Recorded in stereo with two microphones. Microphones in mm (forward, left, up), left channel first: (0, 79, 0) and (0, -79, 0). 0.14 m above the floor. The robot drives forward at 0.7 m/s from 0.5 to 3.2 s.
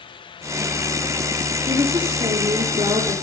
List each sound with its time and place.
1.7 s a woman speaking: 30° right (ahead or behind), 3 m; by 3.1 s 40° right (ahead or behind), 2 m